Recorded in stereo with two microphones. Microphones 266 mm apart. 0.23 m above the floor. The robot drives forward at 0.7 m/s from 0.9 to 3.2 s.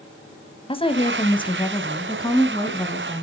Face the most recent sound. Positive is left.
turn(degrees=10)  # may be behind; listen again after turning